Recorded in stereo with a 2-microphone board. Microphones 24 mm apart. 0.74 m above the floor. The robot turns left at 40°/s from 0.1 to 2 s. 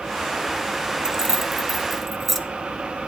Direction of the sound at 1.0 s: 20° right (ahead or behind).